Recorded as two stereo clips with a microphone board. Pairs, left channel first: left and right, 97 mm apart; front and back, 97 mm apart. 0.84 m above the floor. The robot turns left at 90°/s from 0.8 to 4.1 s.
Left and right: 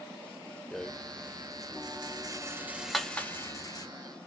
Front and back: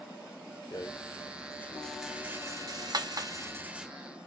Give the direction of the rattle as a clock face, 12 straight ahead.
12 o'clock.